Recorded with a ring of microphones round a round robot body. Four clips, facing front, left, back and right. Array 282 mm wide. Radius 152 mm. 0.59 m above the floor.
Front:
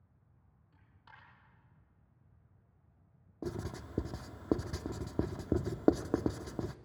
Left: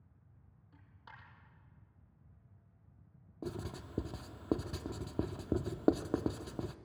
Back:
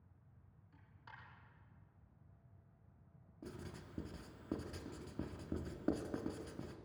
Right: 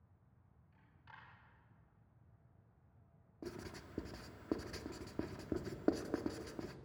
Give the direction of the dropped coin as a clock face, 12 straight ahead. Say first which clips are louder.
Left 3 dB, back 1 dB; 9 o'clock.